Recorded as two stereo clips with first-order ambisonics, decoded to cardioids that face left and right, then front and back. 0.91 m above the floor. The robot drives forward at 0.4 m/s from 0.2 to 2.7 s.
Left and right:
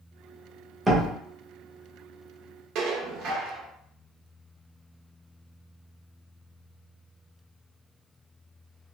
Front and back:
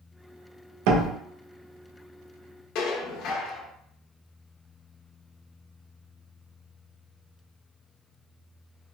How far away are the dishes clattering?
About 0.7 m.